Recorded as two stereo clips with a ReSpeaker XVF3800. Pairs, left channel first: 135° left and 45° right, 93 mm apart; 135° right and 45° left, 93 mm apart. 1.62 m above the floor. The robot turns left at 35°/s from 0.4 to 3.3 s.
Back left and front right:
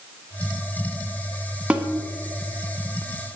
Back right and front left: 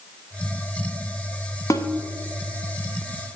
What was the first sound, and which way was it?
A snare drum, 115° right.